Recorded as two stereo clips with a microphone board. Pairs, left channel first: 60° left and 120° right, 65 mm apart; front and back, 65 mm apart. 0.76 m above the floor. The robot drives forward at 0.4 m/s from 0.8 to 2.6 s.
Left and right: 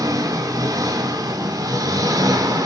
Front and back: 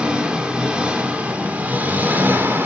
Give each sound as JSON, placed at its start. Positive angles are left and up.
{"t": 0.0, "sound": "an engine running", "azimuth_deg": -105, "distance_m": 2.0}